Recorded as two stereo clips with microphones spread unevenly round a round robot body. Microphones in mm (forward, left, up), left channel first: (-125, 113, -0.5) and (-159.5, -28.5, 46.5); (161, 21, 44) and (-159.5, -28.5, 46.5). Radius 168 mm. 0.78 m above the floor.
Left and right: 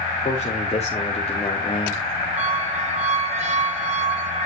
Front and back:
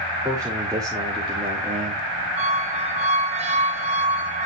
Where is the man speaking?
110° left, 2 m; by 2.3 s 125° left, 1.2 m.